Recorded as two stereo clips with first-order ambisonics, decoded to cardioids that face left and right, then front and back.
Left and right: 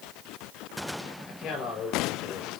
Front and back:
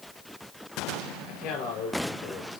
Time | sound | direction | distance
1.3 | a man speaking | 35° left | 6 m